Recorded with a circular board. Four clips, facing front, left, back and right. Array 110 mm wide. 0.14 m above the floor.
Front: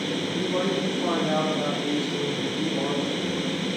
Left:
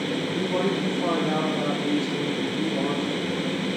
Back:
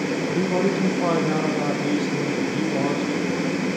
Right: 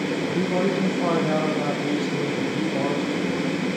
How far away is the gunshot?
No gunshot in this recording.